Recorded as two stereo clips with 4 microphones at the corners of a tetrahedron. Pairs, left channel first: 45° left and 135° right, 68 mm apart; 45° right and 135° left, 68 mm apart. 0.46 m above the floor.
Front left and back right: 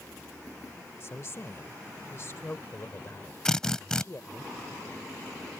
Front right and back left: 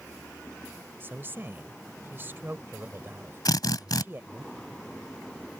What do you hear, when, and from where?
1.0 s a woman speaking: 85° left
3.5 s a drill: 35° right